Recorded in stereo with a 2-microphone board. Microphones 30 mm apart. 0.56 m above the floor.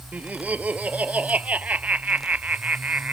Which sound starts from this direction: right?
Laughter, at 0.1 s.